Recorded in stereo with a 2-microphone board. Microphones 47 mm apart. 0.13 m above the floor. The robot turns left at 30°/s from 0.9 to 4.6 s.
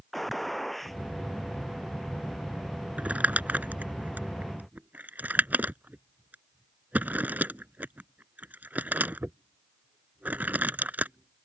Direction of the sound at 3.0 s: 30° right (ahead or behind).